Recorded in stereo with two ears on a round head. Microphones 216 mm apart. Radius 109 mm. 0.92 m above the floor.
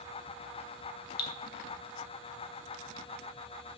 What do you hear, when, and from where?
1.2 s dripping: 40° left (ahead or behind), 1.0 m